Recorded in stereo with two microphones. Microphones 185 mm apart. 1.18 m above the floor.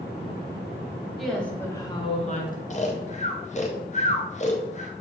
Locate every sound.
1.2 s a woman speaking: centre (ahead or behind), 1.3 m; by 2.6 s 50° left (ahead or behind), 0.9 m
2.7 s snoring: 40° left (ahead or behind), 0.6 m